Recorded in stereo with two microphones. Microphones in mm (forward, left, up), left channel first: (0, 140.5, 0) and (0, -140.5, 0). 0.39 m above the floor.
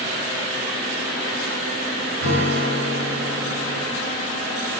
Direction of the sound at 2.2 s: 60° right (ahead or behind).